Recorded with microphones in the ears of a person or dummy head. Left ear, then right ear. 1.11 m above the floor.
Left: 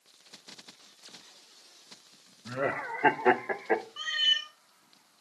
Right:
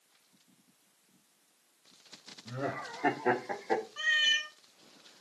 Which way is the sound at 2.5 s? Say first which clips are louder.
Left 6 dB; 65° left (ahead or behind).